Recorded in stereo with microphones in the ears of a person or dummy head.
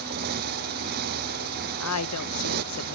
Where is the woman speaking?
90° left.